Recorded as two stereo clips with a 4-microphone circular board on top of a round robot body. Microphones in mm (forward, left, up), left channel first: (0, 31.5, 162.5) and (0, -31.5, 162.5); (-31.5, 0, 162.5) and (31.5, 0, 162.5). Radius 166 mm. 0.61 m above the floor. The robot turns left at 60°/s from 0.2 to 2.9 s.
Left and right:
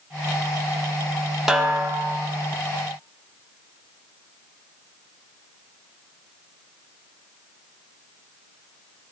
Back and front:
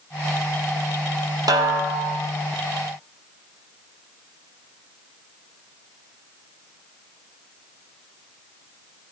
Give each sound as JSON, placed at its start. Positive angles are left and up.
{"t": 1.5, "sound": "a snare drum", "azimuth_deg": -5, "distance_m": 1.5}